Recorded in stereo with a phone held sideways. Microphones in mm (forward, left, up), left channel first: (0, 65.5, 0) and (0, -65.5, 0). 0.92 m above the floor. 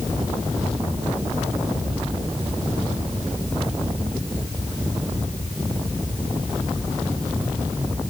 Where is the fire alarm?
I don't hear a fire alarm.